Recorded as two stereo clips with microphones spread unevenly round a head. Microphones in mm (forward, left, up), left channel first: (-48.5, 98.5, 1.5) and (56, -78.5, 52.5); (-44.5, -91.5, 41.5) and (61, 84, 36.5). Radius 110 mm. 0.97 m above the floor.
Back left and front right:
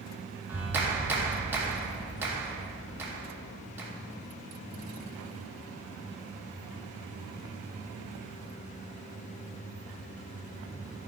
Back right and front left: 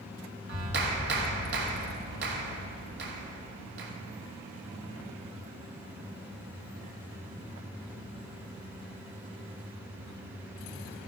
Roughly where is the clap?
Ahead left.